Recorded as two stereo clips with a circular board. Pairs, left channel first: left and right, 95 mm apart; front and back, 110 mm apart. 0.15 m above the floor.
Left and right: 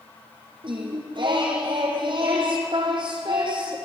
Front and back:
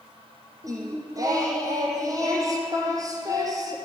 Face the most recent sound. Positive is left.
turn(degrees=-120)